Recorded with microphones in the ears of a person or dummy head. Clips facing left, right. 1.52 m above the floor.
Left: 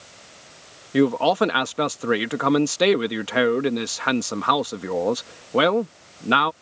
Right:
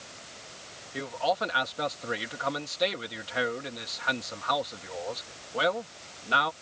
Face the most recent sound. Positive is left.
turn(degrees=65)  # may be behind; listen again after turning